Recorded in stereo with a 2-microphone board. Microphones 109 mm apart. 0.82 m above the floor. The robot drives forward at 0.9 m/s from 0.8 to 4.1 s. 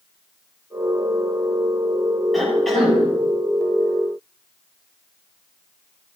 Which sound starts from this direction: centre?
A cough, at 2.3 s.